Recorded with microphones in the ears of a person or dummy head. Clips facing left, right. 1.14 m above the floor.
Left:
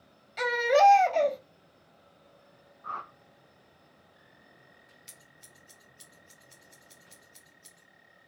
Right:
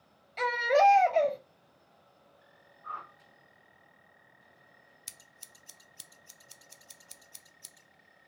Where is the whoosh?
55° left (ahead or behind), 0.5 m.